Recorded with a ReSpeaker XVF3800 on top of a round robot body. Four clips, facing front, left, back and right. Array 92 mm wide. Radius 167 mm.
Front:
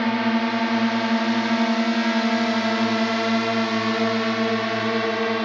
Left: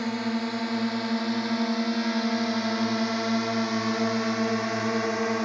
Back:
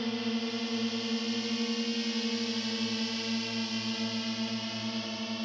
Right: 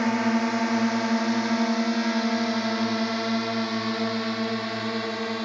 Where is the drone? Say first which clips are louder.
Right 5 dB, front 11 dB; 25° right; by 5.5 s 20° left.